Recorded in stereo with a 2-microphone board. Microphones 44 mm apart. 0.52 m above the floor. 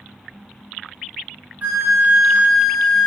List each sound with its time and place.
1.6 s a flute: 35° right (ahead or behind), 0.5 m